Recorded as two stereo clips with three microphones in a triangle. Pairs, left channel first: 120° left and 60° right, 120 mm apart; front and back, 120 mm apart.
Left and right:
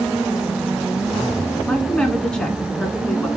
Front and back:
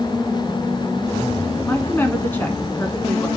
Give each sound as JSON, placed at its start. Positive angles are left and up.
{"t": 1.6, "sound": "a woman speaking", "azimuth_deg": 50, "distance_m": 1.2}